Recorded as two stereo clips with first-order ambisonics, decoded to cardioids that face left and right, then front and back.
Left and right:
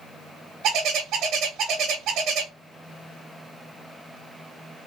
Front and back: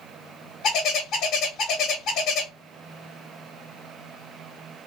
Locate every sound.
0.6 s a bird: 45° right, 0.7 m